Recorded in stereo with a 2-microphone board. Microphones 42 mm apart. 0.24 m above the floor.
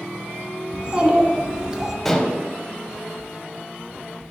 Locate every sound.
0.7 s a child speaking: 30° right (ahead or behind), 1.7 m; by 1.9 s 15° right (ahead or behind), 1.0 m
2.0 s dishes clattering: 5° left (ahead or behind), 0.7 m